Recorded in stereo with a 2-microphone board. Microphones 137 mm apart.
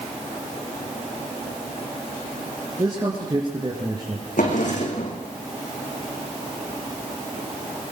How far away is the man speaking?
About 3.5 m.